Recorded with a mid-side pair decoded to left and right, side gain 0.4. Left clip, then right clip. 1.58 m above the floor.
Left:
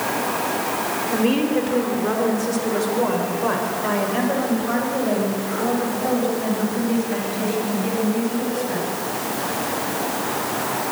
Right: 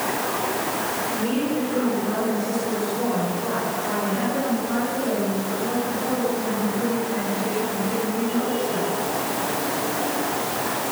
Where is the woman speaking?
65° left, 5 m; by 8.8 s 70° left, 13 m.